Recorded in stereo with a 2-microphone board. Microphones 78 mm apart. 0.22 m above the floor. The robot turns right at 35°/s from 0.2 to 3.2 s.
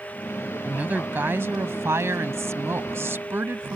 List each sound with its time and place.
0.7 s a woman speaking: 145° right; by 3.8 s 55° right